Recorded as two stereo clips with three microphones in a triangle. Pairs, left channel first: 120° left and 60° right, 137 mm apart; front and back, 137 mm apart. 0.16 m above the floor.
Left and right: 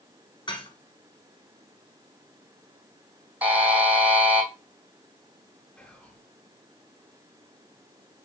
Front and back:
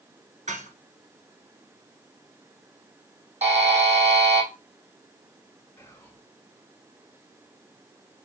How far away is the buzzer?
About 1.7 m.